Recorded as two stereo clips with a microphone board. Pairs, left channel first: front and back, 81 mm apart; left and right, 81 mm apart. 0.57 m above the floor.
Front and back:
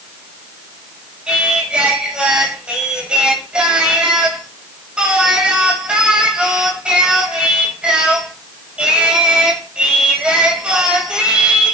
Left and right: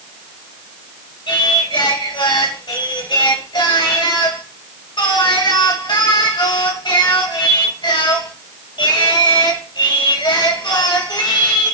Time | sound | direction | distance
1.3 | singing | 100° left | 2.5 m